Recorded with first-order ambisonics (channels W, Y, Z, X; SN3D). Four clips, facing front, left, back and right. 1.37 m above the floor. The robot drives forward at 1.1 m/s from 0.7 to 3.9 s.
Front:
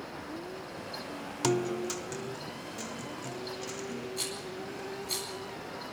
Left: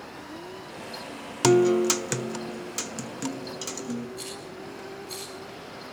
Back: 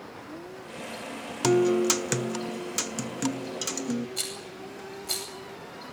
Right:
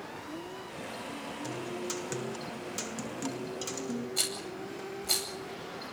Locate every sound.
1.4 s a guitar: 100° left, 0.6 m; by 4.1 s 170° left, 3 m
4.2 s a rattle: 125° right, 9 m